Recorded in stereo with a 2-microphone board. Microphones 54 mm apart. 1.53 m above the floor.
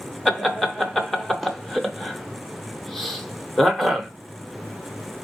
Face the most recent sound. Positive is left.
turn(degrees=5)  # may be behind; listen again after turning